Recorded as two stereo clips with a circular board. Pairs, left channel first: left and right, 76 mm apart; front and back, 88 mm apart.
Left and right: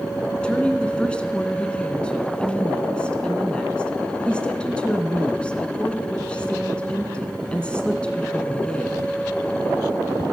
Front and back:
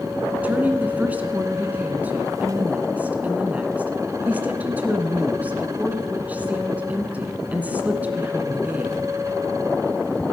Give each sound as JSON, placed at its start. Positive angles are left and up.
{"t": 0.4, "sound": "a woman speaking", "azimuth_deg": 140, "distance_m": 1.2}